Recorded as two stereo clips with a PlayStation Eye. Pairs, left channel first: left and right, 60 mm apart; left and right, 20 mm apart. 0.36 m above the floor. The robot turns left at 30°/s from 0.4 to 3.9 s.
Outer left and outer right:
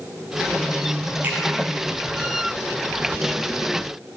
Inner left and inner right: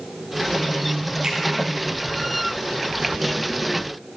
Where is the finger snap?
30° right (ahead or behind), 3.5 m; by 1.4 s 25° right (ahead or behind), 3.5 m.